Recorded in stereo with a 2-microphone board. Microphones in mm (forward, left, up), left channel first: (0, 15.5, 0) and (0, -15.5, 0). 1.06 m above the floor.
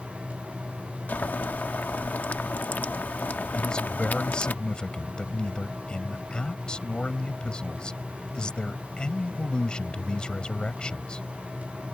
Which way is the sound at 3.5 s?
30° left (ahead or behind).